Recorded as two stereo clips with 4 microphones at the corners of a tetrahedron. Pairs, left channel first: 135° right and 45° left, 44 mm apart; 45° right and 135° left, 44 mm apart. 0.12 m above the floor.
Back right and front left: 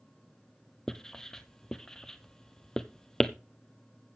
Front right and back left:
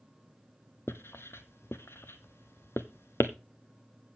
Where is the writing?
60° right, 0.8 m.